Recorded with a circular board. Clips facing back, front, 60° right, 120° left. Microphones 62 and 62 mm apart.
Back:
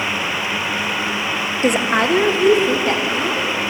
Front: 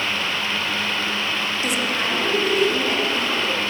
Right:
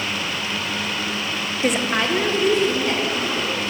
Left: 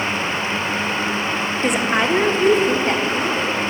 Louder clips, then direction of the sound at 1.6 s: Back 10 dB, left 1 dB; 140° right.